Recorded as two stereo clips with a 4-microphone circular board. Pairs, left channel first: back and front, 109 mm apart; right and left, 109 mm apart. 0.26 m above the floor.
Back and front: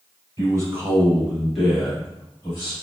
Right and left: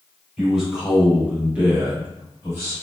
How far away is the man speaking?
About 1.3 m.